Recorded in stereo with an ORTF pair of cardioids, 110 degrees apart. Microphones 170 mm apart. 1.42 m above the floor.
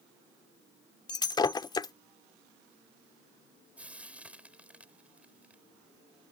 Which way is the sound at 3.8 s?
5° right.